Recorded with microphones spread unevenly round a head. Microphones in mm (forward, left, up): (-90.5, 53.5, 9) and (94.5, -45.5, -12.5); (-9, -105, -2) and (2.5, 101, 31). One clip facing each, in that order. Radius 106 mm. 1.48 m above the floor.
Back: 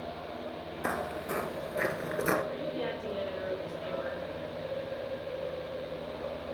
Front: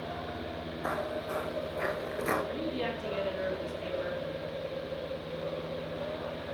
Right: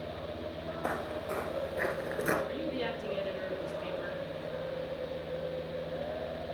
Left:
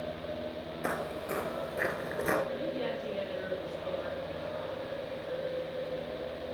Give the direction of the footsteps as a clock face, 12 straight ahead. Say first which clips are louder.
Even, left 1 dB; 7 o'clock.